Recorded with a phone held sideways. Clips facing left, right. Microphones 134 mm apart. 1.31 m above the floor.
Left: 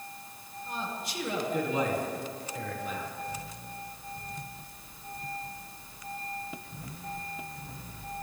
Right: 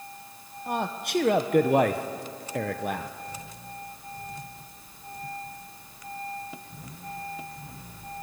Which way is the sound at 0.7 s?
65° right (ahead or behind).